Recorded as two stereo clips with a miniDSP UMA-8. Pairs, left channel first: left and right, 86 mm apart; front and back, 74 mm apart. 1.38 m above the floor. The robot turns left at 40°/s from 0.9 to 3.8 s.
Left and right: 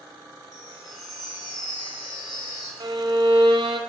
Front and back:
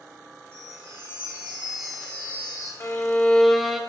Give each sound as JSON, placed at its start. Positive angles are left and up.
{"t": 0.5, "sound": "a chime", "azimuth_deg": 130, "distance_m": 3.5}
{"t": 2.8, "sound": "a violin", "azimuth_deg": -55, "distance_m": 0.7}